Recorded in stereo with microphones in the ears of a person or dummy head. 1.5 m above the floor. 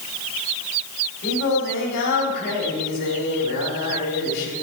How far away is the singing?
About 3 m.